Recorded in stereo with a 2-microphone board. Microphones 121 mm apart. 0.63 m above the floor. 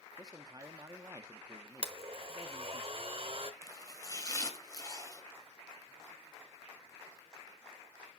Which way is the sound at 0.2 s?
30° right (ahead or behind).